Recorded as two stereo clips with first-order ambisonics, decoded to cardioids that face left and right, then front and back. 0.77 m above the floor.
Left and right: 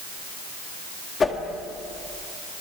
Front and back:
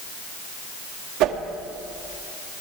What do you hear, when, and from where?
1.2 s a whoosh: 160° left, 1.8 m